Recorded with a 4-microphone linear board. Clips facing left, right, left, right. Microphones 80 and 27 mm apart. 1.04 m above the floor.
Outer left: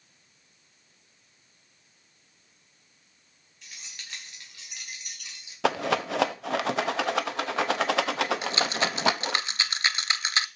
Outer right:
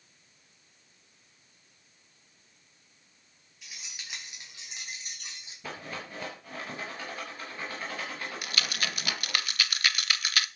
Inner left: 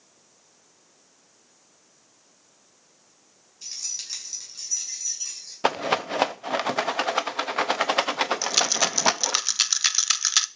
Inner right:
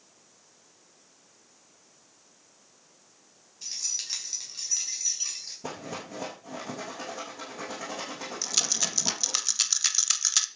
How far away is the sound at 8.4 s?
About 0.5 m.